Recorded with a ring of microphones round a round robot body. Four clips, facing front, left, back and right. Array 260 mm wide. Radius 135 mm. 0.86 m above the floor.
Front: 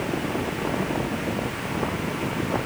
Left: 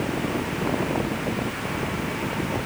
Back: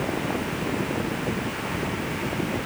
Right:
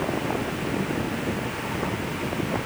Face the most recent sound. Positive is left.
No sound to turn to.